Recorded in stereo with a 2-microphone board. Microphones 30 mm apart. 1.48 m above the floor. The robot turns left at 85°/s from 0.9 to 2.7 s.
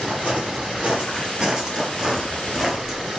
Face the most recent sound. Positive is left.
turn(degrees=-15)  # may be behind; listen again after turning